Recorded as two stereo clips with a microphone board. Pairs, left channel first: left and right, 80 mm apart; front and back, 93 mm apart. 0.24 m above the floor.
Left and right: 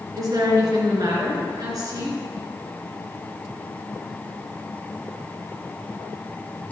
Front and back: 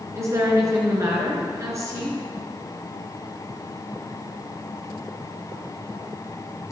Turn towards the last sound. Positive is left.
turn(degrees=-125)